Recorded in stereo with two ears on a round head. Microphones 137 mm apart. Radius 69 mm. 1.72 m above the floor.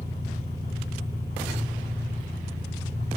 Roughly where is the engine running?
Left.